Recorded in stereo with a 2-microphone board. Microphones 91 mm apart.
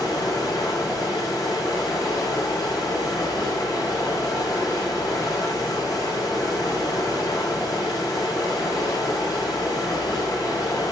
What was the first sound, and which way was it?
Running water, 45° left (ahead or behind).